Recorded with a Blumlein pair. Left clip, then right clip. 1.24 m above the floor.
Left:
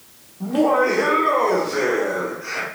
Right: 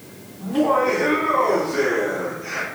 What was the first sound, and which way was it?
Laughter, 15° left.